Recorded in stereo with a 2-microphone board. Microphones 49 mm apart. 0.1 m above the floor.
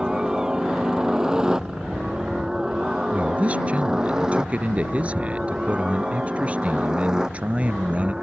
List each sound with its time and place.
0.0 s a helicopter: 15° right (ahead or behind)
3.1 s a man speaking: 30° right (ahead or behind)